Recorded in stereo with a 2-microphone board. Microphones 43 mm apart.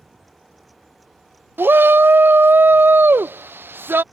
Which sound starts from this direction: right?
A shout, at 1.6 s.